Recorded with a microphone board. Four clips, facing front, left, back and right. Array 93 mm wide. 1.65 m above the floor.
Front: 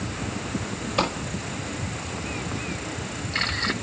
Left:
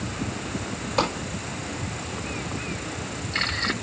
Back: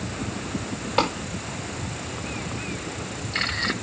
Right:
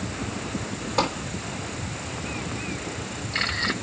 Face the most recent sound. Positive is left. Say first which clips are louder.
# even, back 2 dB
turn(degrees=-160)